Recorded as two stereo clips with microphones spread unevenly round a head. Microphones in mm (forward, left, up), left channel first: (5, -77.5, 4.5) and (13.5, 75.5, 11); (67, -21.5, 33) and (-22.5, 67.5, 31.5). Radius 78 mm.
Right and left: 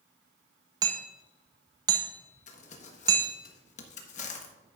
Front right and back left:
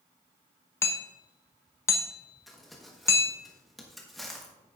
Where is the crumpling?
135° right, 1.2 m.